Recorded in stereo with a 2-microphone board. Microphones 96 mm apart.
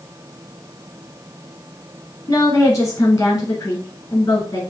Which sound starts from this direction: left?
A woman speaking, at 2.3 s.